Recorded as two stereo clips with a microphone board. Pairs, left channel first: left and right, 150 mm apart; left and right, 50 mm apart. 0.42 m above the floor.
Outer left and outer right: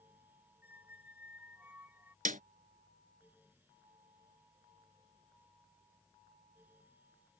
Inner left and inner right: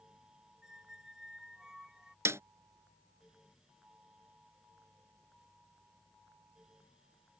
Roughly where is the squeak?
Centre.